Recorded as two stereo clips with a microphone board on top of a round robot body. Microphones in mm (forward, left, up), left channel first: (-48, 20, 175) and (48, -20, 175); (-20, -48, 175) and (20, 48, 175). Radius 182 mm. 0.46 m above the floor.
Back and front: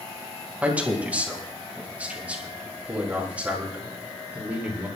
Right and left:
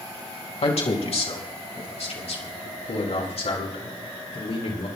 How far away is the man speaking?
About 4 m.